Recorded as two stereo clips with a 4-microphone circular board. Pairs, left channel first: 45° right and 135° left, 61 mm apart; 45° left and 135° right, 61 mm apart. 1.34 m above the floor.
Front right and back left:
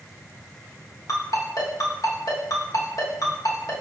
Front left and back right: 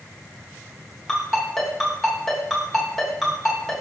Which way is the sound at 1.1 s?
40° right.